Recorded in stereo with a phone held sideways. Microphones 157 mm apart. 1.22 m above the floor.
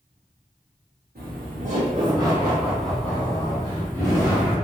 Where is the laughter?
65° right (ahead or behind), 0.6 m; by 4.5 s 20° left (ahead or behind), 1.9 m.